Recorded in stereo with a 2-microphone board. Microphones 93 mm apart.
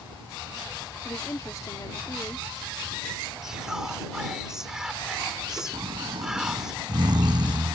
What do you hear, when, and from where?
1.1 s a woman speaking: 40° left (ahead or behind)
3.4 s whispering: 5° right (ahead or behind)
5.7 s snoring: 50° right (ahead or behind)